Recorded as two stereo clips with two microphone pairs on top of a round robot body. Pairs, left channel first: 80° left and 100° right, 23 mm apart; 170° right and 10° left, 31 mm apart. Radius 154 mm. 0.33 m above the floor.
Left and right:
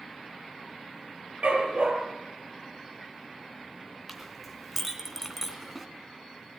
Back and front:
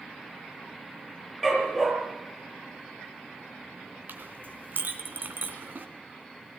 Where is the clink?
20° right, 2.5 m.